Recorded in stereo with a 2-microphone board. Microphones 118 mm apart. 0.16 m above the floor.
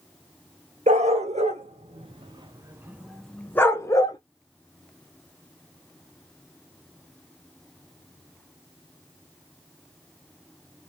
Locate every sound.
0.9 s a dog barking: 70° right (ahead or behind), 1.2 m; by 4.2 s 35° left (ahead or behind), 0.9 m